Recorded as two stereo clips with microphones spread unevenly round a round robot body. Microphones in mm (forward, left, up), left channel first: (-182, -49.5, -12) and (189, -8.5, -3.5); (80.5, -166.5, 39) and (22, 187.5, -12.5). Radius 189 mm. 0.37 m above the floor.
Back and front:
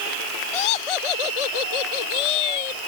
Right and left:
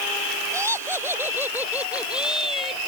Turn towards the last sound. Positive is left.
turn(degrees=-170)